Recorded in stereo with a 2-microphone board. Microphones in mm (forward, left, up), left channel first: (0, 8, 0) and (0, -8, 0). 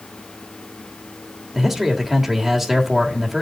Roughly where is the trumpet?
No trumpet in this recording.